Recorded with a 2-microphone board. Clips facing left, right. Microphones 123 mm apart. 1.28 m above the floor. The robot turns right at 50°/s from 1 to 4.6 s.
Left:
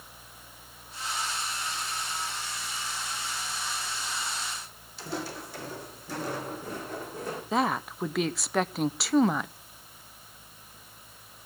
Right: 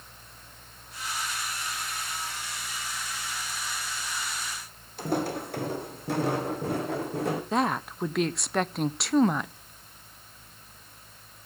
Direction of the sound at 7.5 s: Centre (ahead or behind).